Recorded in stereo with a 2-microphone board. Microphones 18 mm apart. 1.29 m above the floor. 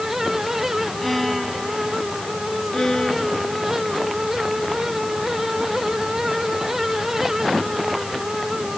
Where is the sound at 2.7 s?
30° left (ahead or behind).